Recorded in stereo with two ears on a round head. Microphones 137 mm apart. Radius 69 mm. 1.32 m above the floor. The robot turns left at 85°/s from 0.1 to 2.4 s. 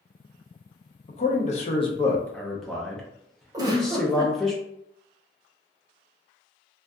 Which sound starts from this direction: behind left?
A man speaking, at 1.1 s.